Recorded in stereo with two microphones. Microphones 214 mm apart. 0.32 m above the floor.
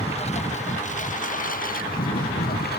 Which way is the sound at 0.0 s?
30° left (ahead or behind).